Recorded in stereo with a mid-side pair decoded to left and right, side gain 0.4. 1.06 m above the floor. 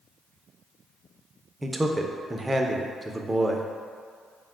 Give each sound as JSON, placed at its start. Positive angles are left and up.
{"t": 1.6, "sound": "a man speaking", "azimuth_deg": -20, "distance_m": 0.5}